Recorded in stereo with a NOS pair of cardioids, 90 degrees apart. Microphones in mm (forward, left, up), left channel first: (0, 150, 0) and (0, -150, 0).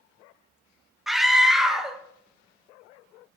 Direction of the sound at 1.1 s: Straight ahead.